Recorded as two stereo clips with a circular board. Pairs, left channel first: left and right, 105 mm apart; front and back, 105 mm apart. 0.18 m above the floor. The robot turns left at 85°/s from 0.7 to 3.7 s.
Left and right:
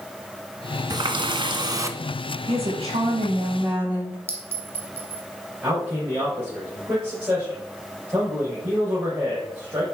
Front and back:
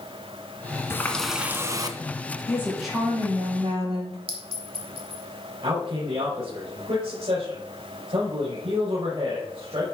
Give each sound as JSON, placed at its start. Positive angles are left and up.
{"t": 0.9, "sound": "a running tap", "azimuth_deg": -60, "distance_m": 1.0}
{"t": 2.5, "sound": "a woman speaking", "azimuth_deg": -60, "distance_m": 5.0}
{"t": 4.3, "sound": "a clink", "azimuth_deg": -160, "distance_m": 2.5}
{"t": 5.6, "sound": "a man speaking", "azimuth_deg": -160, "distance_m": 3.5}